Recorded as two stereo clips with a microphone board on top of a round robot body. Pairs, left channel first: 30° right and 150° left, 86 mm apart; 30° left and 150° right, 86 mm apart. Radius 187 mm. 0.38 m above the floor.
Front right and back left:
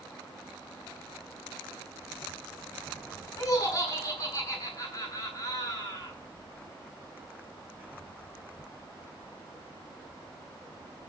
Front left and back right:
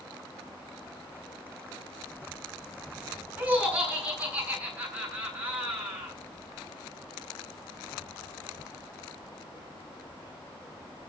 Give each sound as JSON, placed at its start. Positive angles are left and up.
{"t": 3.4, "sound": "laughter", "azimuth_deg": -80, "distance_m": 8.5}